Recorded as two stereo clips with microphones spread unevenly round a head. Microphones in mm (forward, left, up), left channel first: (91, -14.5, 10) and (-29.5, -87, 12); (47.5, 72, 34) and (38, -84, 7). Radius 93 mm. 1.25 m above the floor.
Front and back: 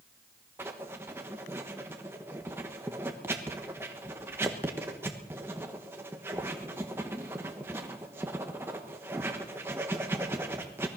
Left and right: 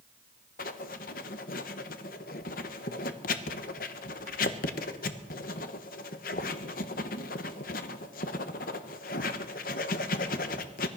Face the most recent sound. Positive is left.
turn(degrees=130)